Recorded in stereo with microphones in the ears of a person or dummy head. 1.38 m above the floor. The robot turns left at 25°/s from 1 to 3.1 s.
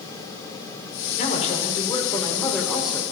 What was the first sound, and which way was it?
A man speaking, 45° left.